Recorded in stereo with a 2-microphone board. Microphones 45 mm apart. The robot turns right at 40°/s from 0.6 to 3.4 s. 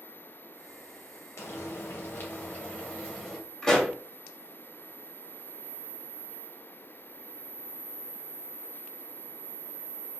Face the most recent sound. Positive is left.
turn(degrees=10)  # may be behind; listen again after turning